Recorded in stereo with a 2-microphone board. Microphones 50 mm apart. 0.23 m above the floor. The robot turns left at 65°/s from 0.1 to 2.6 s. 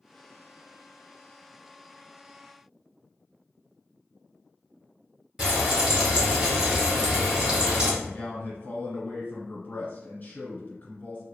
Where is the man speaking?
35° left (ahead or behind), 1.9 m.